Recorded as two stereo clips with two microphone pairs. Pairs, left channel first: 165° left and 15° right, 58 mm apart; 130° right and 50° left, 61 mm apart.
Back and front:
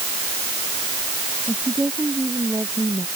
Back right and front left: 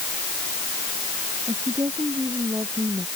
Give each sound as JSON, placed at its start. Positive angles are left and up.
{"t": 1.5, "sound": "a woman speaking", "azimuth_deg": 35}